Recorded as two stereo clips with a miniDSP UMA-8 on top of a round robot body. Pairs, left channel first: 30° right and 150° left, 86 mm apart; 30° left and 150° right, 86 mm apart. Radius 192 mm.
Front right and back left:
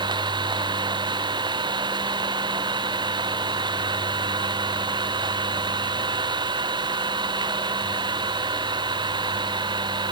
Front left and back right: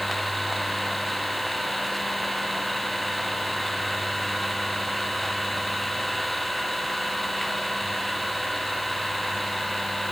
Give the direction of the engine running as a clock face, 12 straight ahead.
8 o'clock.